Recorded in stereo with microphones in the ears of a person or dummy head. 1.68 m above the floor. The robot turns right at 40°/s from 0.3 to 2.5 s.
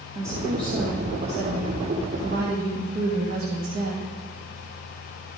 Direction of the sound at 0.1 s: 145° right.